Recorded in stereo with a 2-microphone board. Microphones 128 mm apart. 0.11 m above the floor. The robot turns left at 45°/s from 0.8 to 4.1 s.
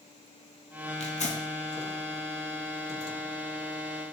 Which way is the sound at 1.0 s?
60° left (ahead or behind).